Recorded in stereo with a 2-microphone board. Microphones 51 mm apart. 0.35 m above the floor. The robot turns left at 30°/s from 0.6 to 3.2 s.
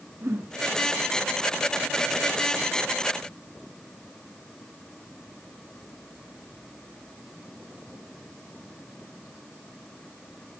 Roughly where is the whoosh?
Right.